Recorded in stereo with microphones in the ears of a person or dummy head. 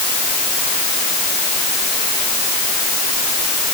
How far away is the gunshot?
No gunshot in this recording.